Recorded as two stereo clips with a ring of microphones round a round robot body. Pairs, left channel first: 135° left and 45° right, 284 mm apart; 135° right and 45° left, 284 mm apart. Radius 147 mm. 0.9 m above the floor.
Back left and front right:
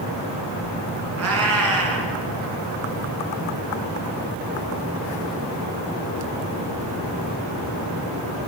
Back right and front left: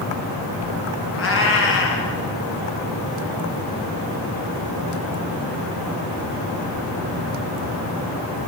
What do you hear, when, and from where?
1.2 s a cat meowing: 85° right, 4 m